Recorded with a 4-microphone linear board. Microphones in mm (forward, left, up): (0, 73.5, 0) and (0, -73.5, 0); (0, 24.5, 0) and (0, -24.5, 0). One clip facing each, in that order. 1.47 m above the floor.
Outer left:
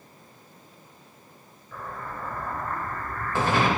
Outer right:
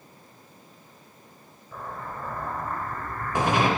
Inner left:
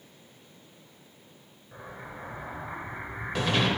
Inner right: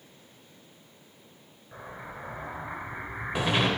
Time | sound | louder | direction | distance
1.7 | an explosion | even, inner right 1 dB | 15° right (ahead or behind) | 0.6 m